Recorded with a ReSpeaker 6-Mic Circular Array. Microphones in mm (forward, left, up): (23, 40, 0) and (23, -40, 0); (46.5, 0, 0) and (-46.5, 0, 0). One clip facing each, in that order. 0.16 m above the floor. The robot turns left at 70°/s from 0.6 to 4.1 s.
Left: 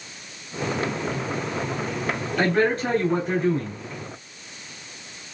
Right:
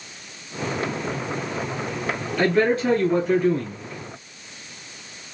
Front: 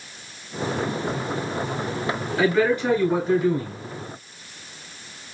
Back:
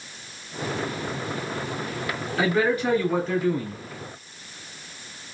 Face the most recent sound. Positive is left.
turn(degrees=5)